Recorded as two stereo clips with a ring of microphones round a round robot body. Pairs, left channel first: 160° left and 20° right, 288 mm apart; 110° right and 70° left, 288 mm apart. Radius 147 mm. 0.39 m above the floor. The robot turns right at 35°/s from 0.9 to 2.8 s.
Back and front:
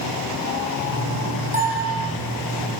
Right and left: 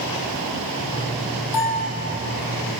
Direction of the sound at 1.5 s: 90° right.